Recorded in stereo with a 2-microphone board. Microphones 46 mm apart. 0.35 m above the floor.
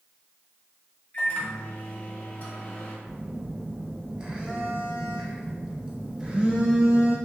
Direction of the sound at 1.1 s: 40° left (ahead or behind).